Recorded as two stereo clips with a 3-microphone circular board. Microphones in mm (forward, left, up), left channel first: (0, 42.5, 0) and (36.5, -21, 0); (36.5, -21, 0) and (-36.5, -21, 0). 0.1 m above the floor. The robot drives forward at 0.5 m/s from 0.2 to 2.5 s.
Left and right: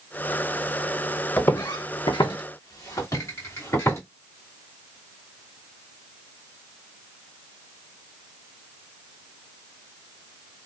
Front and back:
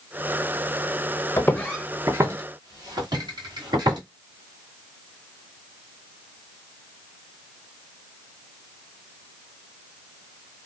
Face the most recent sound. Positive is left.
turn(degrees=175)